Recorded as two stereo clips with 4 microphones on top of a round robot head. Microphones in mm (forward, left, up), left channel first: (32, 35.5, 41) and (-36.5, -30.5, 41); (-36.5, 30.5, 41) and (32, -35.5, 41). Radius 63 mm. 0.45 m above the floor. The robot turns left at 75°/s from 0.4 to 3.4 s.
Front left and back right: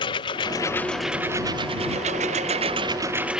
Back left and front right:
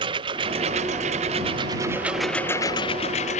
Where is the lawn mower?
Straight ahead; by 3.4 s 140° left.